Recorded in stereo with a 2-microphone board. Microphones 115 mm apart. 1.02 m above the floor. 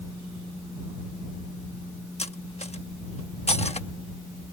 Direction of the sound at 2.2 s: 65° left (ahead or behind).